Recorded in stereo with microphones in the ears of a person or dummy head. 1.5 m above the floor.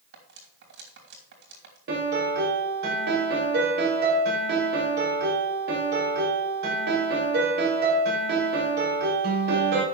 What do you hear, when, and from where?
0.1 s cutlery clinking: 55° right (ahead or behind), 2.5 m
1.9 s a piano: 65° right (ahead or behind), 4.5 m